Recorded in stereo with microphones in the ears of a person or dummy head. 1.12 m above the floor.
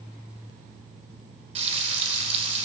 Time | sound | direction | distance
1.6 | frying | 35° right (ahead or behind) | 3.5 m